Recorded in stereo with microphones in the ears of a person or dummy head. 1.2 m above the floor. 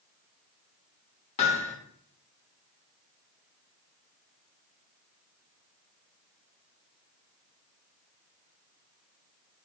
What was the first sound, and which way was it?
Hammering, 35° left (ahead or behind).